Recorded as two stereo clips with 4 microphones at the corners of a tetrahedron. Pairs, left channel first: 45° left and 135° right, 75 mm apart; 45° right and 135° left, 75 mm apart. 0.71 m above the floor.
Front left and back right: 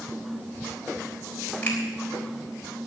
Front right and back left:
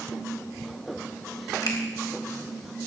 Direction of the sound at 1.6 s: 20° right.